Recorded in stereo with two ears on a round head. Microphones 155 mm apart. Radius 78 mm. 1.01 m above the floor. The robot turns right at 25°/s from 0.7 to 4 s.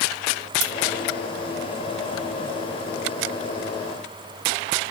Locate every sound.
0.6 s scissors: 35° right (ahead or behind), 3 m